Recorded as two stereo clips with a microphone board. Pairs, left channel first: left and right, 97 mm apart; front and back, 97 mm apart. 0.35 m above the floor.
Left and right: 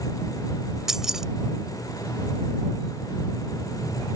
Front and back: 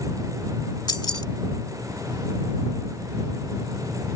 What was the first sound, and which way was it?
Keys jangling, 5° right.